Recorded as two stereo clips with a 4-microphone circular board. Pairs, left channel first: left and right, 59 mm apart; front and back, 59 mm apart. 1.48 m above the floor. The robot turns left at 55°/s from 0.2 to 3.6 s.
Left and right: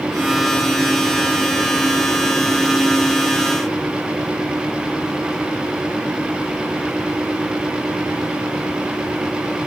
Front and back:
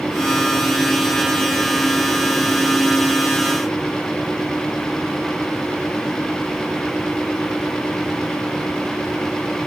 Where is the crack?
No crack in this recording.